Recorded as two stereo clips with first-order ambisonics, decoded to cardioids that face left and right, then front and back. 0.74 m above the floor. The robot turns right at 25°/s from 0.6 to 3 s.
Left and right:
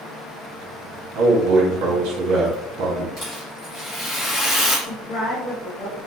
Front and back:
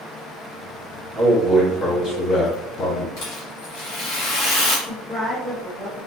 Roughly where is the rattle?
Ahead left.